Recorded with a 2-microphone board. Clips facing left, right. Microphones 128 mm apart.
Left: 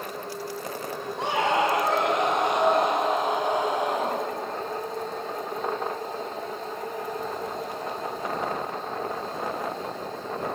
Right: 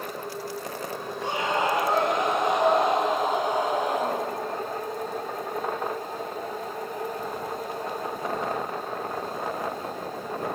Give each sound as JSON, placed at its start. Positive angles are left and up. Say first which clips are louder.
{"t": 1.2, "sound": "a scream", "louder": "left 3 dB", "side_deg": 80, "distance_m": 5.0}